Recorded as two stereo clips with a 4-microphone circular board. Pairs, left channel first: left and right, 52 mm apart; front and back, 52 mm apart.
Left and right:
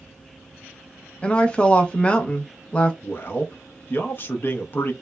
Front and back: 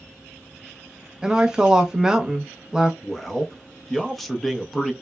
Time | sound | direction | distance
1.2 | a woman speaking | 125° left | 0.5 m
3.0 | a man speaking | 85° left | 0.6 m